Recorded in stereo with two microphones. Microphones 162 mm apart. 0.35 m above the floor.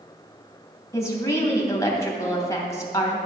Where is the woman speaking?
20° left (ahead or behind), 2.5 m.